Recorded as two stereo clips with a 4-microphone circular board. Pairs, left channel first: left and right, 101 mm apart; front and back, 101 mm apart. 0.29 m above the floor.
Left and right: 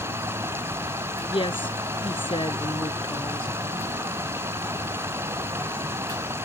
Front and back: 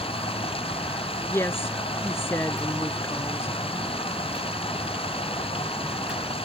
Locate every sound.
0.0 s running water: 25° right
1.3 s a woman speaking: 65° left